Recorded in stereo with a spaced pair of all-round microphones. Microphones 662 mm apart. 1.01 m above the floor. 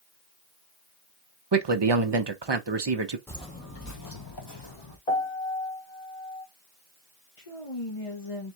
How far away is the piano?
About 1.5 m.